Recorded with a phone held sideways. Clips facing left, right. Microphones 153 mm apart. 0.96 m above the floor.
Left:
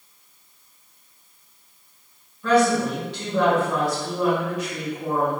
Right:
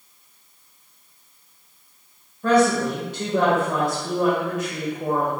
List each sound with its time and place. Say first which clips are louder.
2.4 s a woman speaking: right 1 dB; 45° right (ahead or behind), 0.8 m